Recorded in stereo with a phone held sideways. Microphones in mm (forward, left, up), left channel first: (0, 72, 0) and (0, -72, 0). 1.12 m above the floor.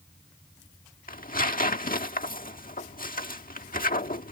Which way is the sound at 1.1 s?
80° left.